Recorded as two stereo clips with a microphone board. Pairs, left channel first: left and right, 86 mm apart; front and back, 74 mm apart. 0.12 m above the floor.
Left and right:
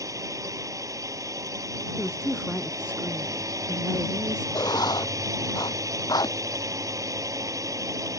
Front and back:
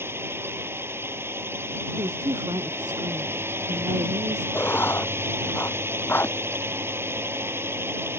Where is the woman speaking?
170° right.